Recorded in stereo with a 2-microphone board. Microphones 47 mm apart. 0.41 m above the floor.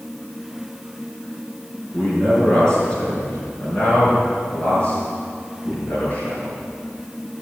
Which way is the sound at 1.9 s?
20° left (ahead or behind).